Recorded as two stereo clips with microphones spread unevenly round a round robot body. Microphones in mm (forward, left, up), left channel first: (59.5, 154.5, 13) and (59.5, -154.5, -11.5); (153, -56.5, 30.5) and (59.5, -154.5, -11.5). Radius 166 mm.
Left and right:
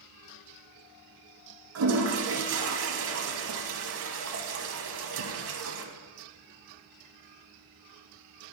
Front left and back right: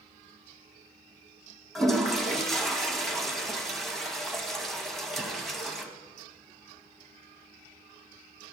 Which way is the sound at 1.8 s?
50° right.